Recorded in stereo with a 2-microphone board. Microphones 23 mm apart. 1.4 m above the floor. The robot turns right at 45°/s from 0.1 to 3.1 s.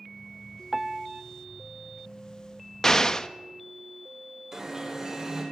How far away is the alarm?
About 7 m.